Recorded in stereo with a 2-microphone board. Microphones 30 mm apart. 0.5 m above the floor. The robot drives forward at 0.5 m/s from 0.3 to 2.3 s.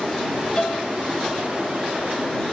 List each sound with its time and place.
0.6 s a piano: 30° left (ahead or behind), 1.4 m; by 0.9 s 35° left (ahead or behind), 1.3 m